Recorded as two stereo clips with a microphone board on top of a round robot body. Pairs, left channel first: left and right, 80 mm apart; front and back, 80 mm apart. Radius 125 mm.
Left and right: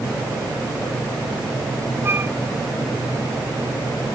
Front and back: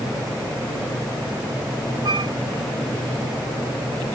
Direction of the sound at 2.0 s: 150° right.